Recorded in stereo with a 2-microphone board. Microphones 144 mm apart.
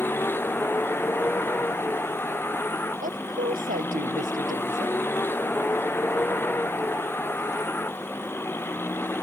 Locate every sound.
0.0 s a vehicle: 15° left (ahead or behind)
3.0 s a woman speaking: 80° right